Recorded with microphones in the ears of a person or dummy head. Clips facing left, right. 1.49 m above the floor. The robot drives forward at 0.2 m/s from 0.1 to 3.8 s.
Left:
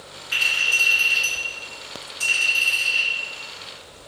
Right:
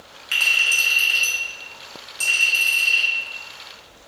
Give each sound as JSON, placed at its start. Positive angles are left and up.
{"t": 0.3, "sound": "a clink", "side_deg": -35, "distance_m": 0.8}